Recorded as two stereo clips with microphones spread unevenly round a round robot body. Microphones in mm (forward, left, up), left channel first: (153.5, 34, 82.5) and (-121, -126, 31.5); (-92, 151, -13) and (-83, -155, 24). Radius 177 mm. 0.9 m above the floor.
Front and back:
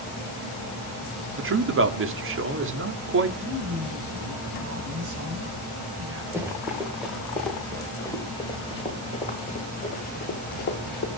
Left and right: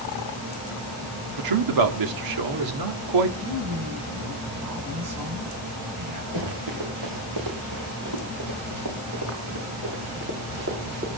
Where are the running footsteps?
65° right, 5 m; by 11.1 s 25° right, 5.5 m.